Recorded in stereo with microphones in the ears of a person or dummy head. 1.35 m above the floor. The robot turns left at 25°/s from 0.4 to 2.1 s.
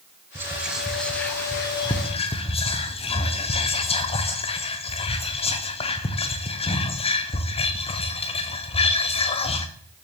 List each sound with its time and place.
0.3 s whispering: 10° right (ahead or behind), 0.5 m; by 9.7 s 30° left (ahead or behind), 0.5 m